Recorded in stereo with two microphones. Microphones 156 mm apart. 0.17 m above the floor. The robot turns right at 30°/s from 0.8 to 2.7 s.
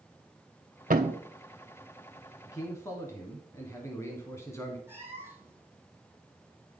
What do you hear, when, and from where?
0.9 s a thud: 60° right (ahead or behind), 1.0 m; by 1.2 s 50° right (ahead or behind), 1.0 m
2.5 s a man speaking: 20° left (ahead or behind), 1.3 m
4.9 s a cat meowing: 15° right (ahead or behind), 1.7 m